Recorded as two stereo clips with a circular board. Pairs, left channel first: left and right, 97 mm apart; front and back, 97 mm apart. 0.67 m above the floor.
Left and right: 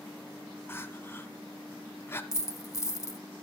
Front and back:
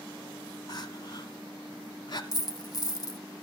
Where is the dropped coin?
40° left, 0.8 m.